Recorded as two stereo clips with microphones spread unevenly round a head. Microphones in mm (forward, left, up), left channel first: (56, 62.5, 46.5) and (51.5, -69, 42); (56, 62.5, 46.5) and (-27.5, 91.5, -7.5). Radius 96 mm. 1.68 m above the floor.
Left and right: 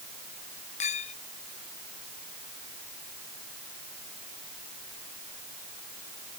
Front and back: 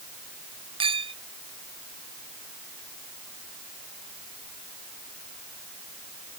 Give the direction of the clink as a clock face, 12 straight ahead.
7 o'clock.